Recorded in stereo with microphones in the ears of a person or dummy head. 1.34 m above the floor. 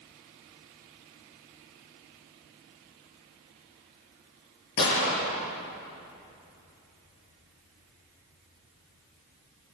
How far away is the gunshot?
About 8 m.